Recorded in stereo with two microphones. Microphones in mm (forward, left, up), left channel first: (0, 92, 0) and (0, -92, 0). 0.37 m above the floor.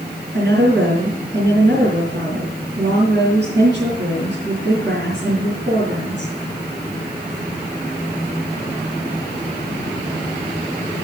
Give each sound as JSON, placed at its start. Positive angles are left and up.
{"t": 0.3, "sound": "a woman speaking", "side_deg": -75, "distance_m": 4.5}